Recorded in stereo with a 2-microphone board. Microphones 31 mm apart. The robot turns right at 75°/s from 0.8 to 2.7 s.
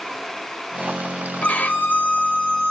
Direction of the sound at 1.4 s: 50° left.